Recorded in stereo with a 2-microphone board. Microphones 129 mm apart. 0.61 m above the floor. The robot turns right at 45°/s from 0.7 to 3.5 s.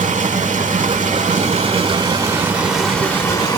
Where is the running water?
95° right, 1.2 m; by 3.6 s 30° left, 1.2 m.